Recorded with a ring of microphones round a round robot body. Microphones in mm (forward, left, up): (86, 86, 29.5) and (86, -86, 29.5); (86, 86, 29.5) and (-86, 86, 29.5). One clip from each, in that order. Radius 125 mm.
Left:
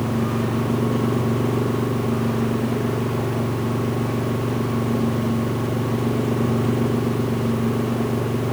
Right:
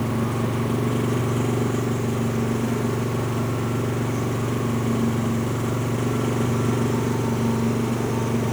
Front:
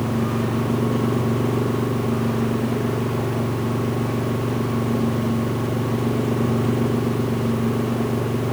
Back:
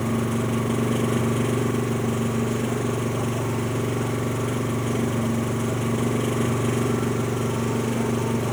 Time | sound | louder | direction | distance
0.0 | an engine running | left 2 dB, front 2 dB | 160° right | ?